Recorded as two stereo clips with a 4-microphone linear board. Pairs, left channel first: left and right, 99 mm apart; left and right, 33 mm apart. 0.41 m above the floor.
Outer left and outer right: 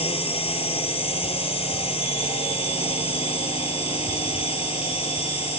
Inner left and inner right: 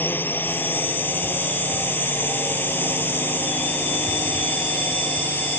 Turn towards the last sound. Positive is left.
turn(degrees=75)  # may be behind; listen again after turning